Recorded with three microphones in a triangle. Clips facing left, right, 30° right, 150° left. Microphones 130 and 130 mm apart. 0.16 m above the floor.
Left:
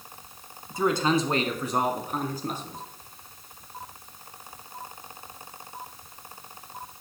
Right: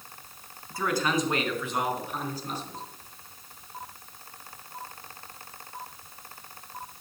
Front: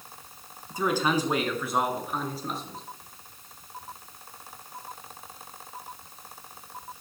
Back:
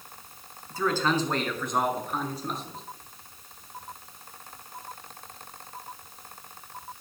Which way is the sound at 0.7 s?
30° left.